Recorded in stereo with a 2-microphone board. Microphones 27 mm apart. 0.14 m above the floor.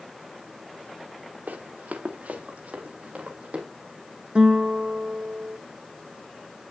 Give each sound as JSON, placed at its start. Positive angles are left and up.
{"t": 1.5, "sound": "running footsteps", "side_deg": -80, "distance_m": 1.7}
{"t": 4.3, "sound": "a guitar", "side_deg": -35, "distance_m": 0.8}